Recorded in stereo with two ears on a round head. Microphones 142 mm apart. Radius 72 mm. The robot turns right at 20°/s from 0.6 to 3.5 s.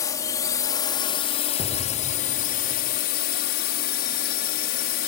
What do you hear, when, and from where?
0.0 s a drone: 25° left; by 5.1 s 80° left
1.6 s an explosion: 25° left (ahead or behind); by 3.0 s centre (ahead or behind)